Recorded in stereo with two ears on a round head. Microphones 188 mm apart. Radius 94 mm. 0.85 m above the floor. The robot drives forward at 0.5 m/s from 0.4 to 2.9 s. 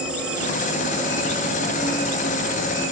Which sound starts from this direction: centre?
An insect, at 0.0 s.